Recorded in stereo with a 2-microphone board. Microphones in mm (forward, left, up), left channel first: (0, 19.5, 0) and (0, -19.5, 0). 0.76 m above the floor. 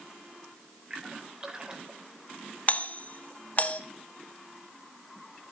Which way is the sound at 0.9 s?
25° right (ahead or behind).